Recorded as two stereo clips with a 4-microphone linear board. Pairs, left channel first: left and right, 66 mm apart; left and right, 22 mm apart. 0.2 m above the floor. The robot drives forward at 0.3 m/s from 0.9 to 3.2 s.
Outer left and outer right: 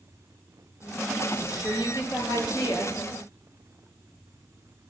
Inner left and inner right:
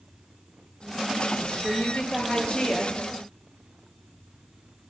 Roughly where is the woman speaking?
Left.